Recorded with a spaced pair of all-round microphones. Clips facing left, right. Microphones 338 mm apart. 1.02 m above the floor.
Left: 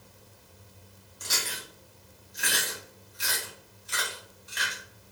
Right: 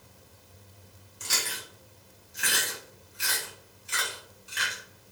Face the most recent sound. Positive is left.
turn(degrees=-35)  # may be behind; listen again after turning